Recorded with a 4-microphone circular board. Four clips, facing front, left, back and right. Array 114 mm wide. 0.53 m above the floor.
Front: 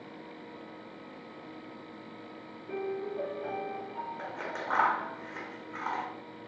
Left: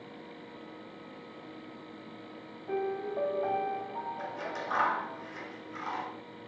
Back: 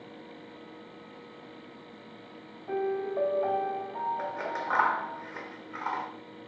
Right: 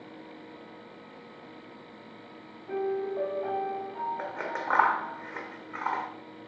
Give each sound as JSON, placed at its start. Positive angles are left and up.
{"t": 2.7, "sound": "a piano", "azimuth_deg": 175, "distance_m": 2.5}
{"t": 4.2, "sound": "scissors", "azimuth_deg": -100, "distance_m": 1.3}